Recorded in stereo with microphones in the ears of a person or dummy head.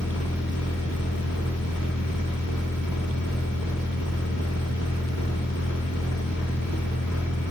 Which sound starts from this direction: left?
A machine running, at 0.0 s.